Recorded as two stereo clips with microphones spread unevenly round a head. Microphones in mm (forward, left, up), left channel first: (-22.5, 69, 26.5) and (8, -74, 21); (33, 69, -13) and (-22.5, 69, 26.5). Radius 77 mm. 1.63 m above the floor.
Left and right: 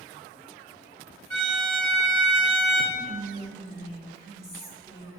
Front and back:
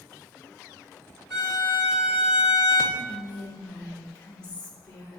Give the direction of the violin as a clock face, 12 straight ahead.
3 o'clock.